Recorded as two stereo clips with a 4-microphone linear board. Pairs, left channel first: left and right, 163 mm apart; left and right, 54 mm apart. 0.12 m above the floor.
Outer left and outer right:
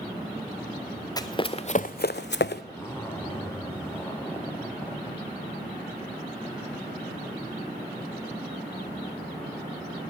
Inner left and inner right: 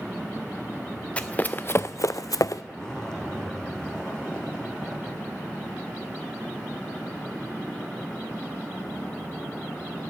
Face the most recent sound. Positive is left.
turn(degrees=15)  # may be behind; listen again after turning